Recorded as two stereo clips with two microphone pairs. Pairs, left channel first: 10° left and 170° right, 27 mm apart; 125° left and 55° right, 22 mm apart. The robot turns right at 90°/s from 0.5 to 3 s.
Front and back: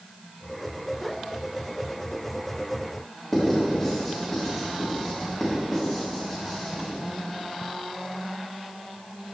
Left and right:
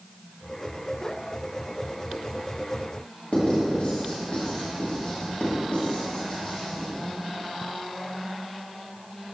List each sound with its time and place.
3.3 s writing: 95° left, 2 m